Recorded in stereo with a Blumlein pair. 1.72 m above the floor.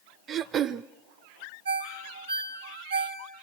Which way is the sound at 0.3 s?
25° right.